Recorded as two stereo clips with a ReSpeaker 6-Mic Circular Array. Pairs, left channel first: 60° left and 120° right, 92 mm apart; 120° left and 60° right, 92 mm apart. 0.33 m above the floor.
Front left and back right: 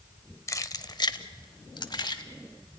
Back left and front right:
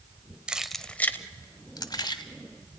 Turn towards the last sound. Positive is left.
turn(degrees=90)